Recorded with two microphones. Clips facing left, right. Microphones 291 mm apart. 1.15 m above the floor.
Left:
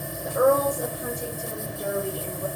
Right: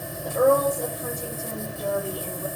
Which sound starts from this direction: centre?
A woman speaking, at 0.2 s.